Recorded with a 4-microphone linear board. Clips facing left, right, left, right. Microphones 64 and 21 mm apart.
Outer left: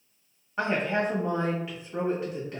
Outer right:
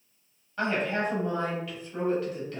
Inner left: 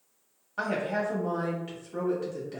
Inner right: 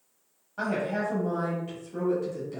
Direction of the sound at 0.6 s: 20° left (ahead or behind).